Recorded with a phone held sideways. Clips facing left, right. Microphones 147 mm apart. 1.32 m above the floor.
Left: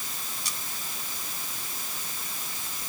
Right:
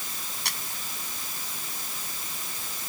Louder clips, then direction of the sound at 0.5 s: Right 5 dB; 70° right (ahead or behind).